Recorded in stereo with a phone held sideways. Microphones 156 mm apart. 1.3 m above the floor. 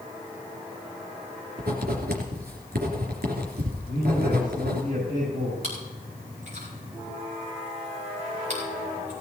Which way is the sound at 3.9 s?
60° right (ahead or behind).